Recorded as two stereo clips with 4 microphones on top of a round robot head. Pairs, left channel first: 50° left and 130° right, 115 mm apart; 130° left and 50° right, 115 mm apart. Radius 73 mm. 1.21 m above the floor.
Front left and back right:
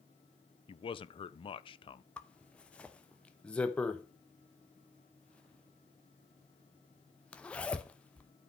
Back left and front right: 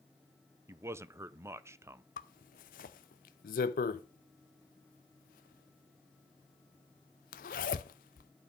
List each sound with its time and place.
0.7 s a man speaking: 15° left, 0.7 m
2.2 s a zipper: 130° left, 0.6 m